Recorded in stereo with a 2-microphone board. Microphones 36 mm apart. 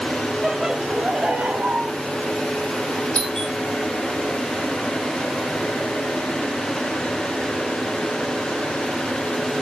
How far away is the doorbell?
About 4 m.